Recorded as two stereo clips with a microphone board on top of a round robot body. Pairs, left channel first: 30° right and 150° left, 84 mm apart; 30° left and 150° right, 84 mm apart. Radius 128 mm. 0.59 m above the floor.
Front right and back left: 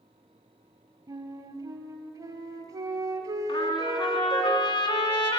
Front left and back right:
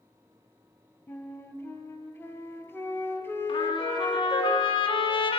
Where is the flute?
100° left, 2 m.